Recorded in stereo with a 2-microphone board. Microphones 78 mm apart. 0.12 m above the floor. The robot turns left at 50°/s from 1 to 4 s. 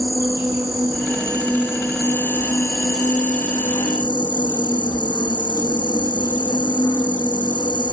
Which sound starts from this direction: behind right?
An insect, at 0.0 s.